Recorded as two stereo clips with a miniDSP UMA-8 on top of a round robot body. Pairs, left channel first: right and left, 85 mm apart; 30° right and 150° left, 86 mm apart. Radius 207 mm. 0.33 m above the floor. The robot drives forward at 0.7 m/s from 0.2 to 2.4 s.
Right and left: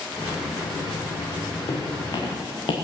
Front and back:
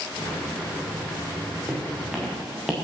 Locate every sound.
1.7 s footsteps: 130° right, 3.5 m; by 2.7 s 125° right, 3 m